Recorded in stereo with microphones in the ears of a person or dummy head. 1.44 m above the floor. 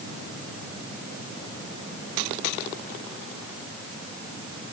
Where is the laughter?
I don't hear laughter.